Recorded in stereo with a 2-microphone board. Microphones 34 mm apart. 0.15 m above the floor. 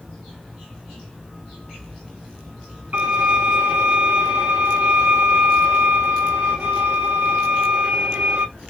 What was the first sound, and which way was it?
A violin, 55° right (ahead or behind).